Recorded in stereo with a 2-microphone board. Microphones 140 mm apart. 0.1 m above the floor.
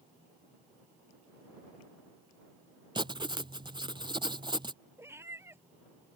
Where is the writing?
35° right (ahead or behind).